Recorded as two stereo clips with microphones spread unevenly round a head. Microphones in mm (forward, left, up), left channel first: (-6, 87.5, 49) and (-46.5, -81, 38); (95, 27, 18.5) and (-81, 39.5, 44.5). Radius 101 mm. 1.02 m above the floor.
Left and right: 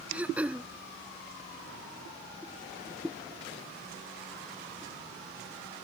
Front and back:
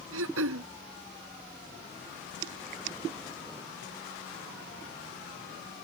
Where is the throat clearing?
175° left.